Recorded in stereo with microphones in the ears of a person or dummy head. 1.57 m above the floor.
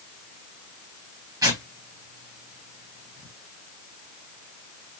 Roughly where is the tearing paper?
Centre.